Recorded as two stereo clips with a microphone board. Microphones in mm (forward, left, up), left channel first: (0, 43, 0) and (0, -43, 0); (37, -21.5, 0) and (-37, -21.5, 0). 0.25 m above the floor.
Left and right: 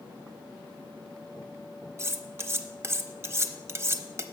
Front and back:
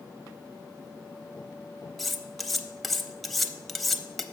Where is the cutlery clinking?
85° right, 0.5 m.